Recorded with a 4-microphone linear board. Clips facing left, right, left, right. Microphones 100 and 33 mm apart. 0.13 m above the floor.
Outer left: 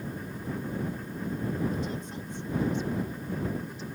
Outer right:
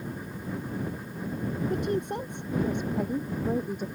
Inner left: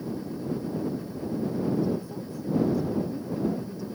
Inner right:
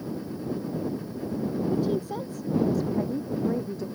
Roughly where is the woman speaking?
Right.